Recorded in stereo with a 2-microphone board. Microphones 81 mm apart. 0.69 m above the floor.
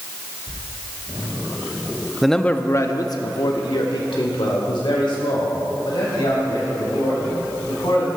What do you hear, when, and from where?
2.2 s a man speaking: 5° right (ahead or behind), 0.6 m; by 8.1 s 85° left, 4.5 m